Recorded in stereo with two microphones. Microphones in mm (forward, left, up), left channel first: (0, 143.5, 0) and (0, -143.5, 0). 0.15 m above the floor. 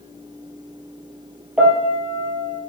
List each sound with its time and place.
1.6 s a piano: 5° right (ahead or behind), 2 m